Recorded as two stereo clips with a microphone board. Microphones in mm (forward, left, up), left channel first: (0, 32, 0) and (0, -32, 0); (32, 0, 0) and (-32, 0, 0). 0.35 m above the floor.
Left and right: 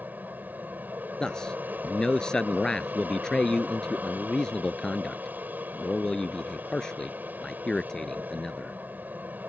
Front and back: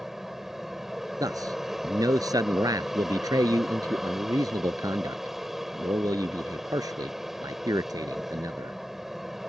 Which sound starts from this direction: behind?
A man speaking, at 1.2 s.